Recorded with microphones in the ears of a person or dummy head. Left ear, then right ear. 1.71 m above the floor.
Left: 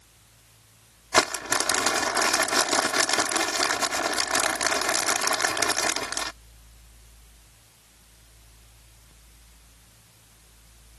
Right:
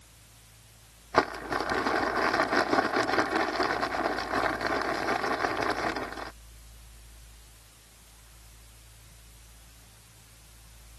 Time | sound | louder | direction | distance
1.1 | crumpling | left 4 dB | 90° left | ?